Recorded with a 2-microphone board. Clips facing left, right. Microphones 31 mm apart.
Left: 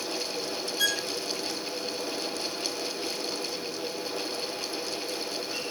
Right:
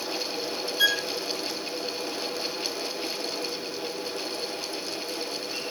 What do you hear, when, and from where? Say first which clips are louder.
0.8 s a violin: right 5 dB; 20° right (ahead or behind)